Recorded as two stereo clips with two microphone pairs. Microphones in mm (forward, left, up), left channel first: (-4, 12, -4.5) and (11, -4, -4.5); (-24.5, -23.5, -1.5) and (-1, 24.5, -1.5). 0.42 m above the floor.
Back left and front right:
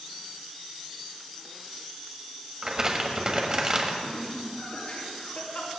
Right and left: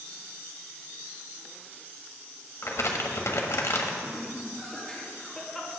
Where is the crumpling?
100° right, 1.4 m.